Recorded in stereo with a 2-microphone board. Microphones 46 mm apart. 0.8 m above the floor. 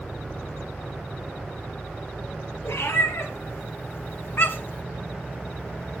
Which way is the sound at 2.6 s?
75° left (ahead or behind).